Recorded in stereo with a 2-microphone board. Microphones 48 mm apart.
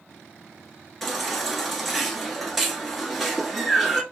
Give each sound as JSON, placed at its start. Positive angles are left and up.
{"t": 1.0, "sound": "a baby crying", "side_deg": 0, "distance_m": 1.1}